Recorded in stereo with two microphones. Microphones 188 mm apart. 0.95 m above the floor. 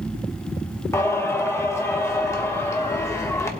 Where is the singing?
15° left (ahead or behind), 1.1 m.